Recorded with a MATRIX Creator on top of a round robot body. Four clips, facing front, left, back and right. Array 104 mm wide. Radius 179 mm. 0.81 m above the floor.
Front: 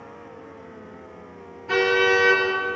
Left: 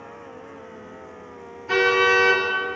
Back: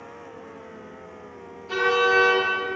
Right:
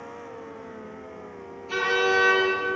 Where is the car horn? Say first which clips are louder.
Left 5 dB, front 1 dB; 55° left, 9 m.